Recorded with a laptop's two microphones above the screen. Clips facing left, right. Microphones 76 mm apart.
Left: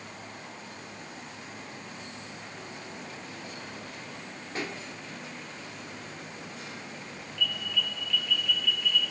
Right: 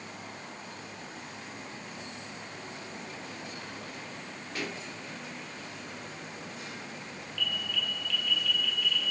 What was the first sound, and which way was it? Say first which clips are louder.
A pop: left 2 dB; 35° left (ahead or behind).